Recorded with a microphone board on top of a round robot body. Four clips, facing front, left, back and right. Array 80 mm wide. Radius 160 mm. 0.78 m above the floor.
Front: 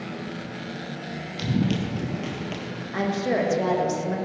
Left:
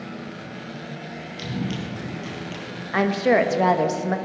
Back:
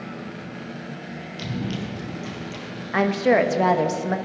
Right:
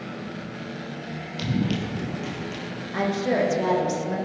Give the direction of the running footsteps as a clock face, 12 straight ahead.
1 o'clock.